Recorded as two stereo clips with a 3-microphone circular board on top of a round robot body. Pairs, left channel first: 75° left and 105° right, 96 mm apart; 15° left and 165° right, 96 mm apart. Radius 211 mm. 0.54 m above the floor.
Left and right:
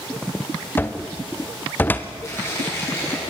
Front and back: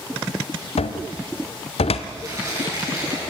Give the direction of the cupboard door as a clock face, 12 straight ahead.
12 o'clock.